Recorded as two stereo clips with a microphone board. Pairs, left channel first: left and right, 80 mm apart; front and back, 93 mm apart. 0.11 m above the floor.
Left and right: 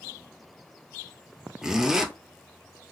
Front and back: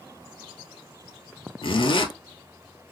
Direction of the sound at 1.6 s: 5° right.